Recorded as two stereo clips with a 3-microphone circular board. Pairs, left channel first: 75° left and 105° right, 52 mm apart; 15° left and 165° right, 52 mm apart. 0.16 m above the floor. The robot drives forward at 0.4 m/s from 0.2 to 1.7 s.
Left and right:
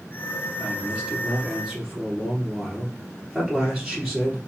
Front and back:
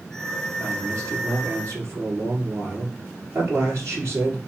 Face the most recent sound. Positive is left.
turn(degrees=165)